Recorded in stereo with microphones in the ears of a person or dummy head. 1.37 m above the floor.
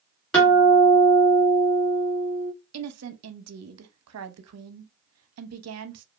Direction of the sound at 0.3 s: 5° left (ahead or behind).